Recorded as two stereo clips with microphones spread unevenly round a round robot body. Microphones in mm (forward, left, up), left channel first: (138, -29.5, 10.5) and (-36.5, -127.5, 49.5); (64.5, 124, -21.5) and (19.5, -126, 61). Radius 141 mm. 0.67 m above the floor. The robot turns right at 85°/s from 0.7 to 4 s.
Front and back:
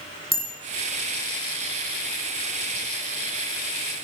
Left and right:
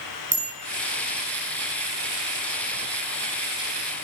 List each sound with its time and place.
0.3 s a bicycle bell: 35° right, 6.5 m